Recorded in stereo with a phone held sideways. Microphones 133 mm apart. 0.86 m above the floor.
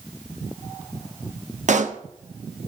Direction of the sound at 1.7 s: 65° right (ahead or behind).